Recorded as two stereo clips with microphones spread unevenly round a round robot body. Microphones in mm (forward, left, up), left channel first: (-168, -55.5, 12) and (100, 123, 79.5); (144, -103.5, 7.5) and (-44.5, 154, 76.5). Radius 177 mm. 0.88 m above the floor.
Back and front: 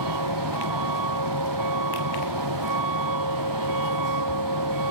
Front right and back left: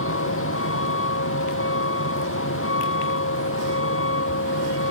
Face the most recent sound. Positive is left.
turn(degrees=-5)